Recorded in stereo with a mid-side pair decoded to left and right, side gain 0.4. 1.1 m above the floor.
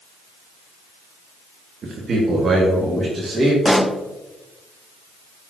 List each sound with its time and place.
1.8 s a man speaking: 55° right, 1.5 m; by 3.5 s 35° right, 2.5 m
3.6 s a pop: straight ahead, 0.8 m